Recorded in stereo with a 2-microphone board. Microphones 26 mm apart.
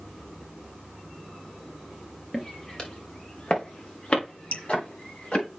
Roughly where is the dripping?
Left.